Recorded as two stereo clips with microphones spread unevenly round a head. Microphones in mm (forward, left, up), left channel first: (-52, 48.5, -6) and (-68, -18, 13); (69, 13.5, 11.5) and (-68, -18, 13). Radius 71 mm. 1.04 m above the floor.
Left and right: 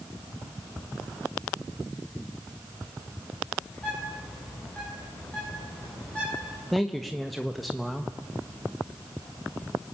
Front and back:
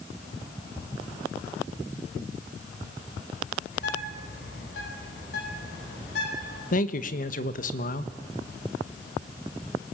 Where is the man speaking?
5° right, 1.3 m.